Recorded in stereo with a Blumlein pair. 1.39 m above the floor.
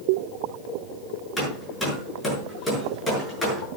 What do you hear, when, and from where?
1.4 s hammering: 10° left, 7.5 m